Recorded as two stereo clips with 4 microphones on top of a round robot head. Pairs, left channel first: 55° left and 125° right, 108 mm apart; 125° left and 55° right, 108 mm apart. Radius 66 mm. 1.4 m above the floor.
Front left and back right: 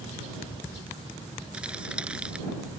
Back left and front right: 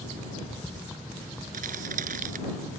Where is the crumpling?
45° right.